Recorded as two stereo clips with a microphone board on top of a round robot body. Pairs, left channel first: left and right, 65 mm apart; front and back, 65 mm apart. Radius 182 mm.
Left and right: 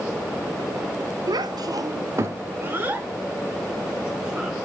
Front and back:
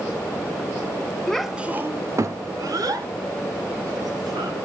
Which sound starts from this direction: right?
A child speaking, at 1.3 s.